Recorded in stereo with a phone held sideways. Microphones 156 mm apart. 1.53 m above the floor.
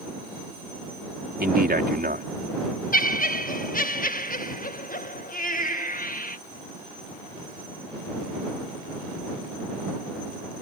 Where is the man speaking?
85° right.